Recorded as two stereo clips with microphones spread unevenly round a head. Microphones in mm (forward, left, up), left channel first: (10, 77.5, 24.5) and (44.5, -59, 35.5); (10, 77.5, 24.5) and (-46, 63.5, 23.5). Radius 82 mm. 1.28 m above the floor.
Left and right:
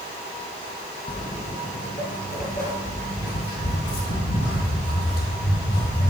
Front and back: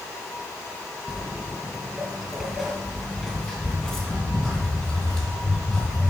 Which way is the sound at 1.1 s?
120° left.